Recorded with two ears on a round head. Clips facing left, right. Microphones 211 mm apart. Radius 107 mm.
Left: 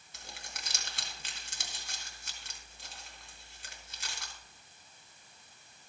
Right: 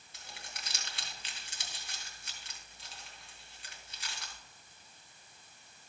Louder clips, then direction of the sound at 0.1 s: Left 2 dB; 40° left (ahead or behind).